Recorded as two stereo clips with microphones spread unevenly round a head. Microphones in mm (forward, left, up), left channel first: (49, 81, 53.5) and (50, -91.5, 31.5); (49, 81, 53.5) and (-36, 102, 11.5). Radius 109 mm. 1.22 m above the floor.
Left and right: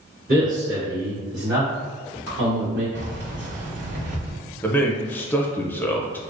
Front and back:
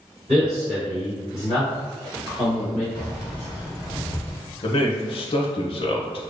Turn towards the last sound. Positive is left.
turn(degrees=10)